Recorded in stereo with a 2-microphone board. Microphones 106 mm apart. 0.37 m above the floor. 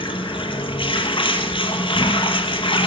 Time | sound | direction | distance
0.0 | running water | 55° left (ahead or behind) | 1.1 m